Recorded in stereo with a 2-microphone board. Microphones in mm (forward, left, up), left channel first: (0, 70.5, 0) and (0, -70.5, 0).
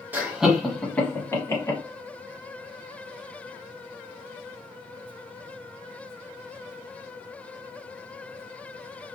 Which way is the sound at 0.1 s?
15° right (ahead or behind).